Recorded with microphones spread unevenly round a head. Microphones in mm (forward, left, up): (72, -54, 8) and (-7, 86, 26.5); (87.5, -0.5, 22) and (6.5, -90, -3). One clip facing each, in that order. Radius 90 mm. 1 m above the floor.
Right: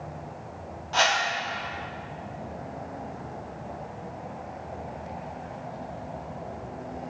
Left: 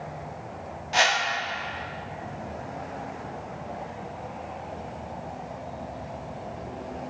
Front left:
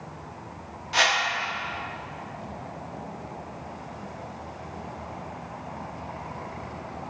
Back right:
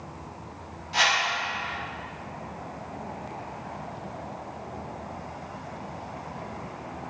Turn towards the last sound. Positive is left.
turn(degrees=50)